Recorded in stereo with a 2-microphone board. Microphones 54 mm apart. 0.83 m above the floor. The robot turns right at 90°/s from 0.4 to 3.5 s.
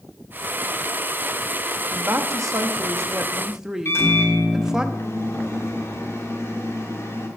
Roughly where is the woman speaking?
Behind right.